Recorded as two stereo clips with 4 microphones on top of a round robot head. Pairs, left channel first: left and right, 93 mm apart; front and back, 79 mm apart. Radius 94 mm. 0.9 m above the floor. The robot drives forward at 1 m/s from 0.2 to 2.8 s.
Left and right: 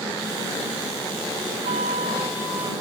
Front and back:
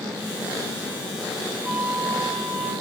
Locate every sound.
1.6 s a flute: 100° right, 1.3 m; by 2.7 s 135° right, 1.8 m